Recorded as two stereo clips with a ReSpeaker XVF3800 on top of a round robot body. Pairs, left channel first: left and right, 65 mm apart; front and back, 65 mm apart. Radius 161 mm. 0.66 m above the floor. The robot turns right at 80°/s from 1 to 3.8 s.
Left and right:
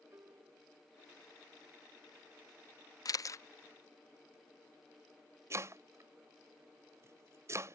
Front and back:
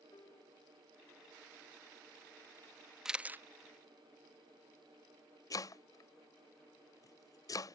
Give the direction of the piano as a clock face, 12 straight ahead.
1 o'clock.